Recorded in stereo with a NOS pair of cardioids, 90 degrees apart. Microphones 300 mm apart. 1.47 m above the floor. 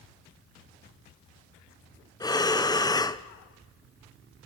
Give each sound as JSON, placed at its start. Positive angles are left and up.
{"t": 2.2, "sound": "breathing", "azimuth_deg": 15, "distance_m": 0.9}